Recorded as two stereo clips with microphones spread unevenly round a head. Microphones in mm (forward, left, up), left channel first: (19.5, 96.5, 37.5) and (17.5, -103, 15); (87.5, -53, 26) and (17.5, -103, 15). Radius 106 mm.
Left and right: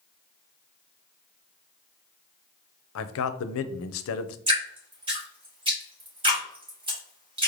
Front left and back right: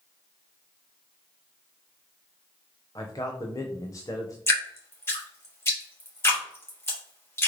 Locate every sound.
3.0 s a man speaking: 105° left, 0.5 m
4.5 s dripping: 25° right, 2.5 m